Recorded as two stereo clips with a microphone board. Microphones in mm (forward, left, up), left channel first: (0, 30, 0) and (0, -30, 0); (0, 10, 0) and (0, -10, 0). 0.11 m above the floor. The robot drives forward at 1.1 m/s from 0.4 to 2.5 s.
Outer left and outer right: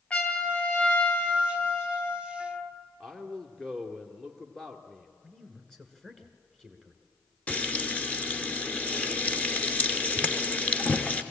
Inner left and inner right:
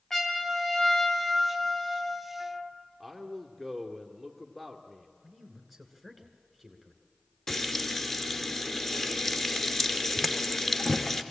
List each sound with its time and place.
0.1 s a trumpet: 20° left (ahead or behind), 1.9 m; by 2.7 s 25° left (ahead or behind), 1.6 m
3.0 s a man speaking: 10° left (ahead or behind), 1.7 m
5.2 s a man speaking: 10° left (ahead or behind), 1.6 m
7.5 s frying: 25° left (ahead or behind), 1.0 m